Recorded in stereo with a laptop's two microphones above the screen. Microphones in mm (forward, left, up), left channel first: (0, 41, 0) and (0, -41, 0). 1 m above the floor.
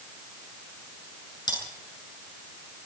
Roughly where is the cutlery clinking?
Left.